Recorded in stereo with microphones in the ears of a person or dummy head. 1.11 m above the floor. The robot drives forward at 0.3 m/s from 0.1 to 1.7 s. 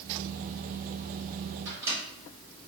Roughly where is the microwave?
Centre.